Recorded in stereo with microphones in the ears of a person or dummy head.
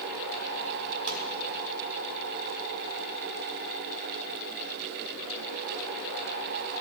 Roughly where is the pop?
Right.